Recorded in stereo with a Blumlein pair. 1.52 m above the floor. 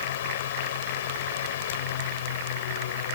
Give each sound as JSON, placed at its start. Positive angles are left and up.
{"t": 0.0, "sound": "a fan", "azimuth_deg": 60}